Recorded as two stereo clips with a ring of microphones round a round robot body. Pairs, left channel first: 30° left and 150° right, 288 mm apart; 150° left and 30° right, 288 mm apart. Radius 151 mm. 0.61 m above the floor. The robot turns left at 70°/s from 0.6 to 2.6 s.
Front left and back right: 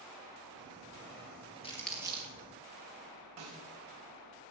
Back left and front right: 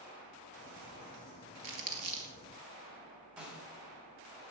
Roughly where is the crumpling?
Ahead right.